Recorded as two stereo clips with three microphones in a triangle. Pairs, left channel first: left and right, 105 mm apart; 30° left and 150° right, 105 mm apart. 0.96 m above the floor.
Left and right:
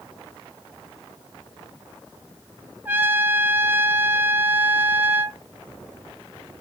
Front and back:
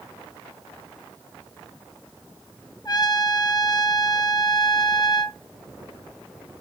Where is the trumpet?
20° right, 0.7 m.